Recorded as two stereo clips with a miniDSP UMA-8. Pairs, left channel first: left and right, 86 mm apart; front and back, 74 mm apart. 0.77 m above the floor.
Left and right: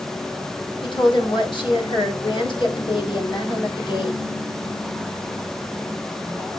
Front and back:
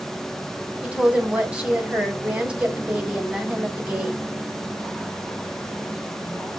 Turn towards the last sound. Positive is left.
turn(degrees=105)